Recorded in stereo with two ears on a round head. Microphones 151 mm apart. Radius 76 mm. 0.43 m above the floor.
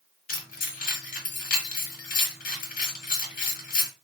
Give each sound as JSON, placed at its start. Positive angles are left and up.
{"t": 0.3, "sound": "keys jangling", "side_deg": 50, "distance_m": 1.3}